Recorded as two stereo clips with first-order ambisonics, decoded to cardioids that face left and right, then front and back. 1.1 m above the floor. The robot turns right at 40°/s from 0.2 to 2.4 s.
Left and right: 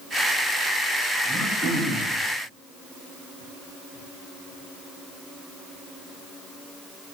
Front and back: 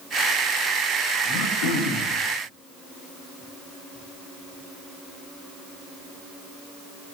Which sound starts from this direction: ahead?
Throat clearing, at 1.2 s.